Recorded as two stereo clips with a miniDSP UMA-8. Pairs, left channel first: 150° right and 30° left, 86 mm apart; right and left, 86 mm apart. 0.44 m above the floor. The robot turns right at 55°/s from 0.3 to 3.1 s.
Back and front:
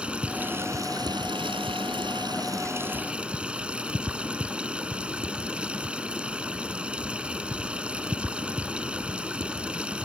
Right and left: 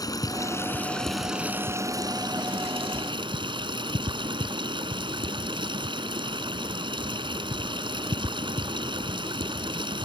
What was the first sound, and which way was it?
Running water, 50° right.